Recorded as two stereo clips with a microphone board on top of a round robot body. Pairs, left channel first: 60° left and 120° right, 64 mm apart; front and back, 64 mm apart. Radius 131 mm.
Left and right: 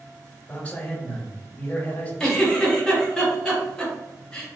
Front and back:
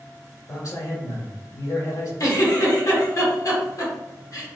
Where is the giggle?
20° right, 1.6 m.